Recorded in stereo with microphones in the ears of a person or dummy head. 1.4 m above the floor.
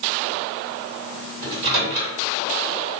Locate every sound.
1.4 s a microwave: 60° right (ahead or behind), 1.7 m